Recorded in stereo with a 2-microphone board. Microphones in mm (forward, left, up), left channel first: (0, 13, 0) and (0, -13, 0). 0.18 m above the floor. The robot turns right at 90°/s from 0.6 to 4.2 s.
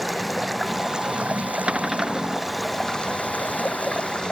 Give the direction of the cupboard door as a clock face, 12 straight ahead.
2 o'clock.